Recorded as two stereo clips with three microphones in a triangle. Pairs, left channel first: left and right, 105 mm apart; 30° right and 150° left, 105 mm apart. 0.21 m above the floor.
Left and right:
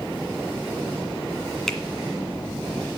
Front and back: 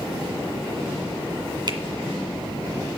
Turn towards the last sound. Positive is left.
turn(degrees=175)